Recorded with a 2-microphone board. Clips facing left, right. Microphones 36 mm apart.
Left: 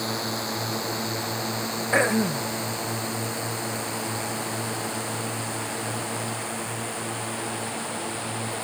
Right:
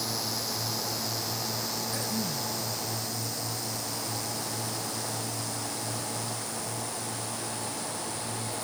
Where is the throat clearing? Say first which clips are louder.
Left 16 dB; 70° left (ahead or behind).